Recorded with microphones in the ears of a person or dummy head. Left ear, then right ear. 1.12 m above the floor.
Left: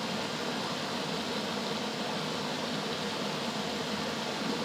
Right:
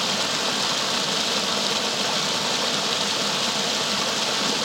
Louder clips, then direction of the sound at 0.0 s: Right 11 dB; 50° right (ahead or behind).